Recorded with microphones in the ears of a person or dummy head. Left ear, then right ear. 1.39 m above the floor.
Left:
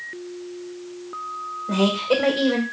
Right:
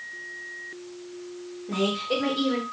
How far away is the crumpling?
I don't hear crumpling.